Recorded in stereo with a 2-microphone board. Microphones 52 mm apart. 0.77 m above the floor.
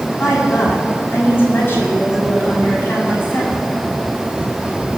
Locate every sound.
0.2 s a woman speaking: 45° left (ahead or behind), 6.5 m